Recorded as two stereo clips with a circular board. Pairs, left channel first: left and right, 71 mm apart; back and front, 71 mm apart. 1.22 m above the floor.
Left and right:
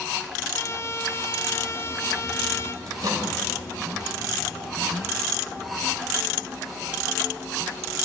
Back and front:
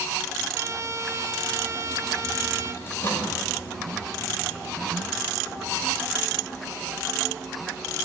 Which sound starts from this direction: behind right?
A microwave, at 2.9 s.